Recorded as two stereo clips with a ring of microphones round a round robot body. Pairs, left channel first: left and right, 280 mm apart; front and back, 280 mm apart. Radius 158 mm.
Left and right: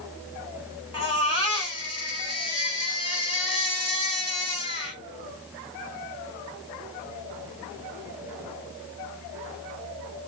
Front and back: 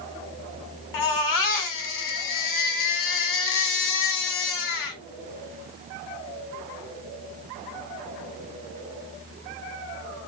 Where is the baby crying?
15° left, 1.6 m.